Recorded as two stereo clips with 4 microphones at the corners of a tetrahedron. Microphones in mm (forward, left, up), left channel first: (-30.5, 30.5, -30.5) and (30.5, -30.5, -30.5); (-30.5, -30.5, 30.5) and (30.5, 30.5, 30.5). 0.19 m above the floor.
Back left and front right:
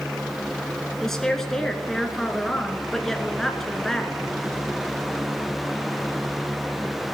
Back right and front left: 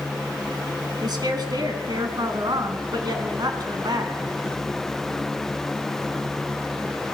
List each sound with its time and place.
1.0 s a woman speaking: 50° left, 1.7 m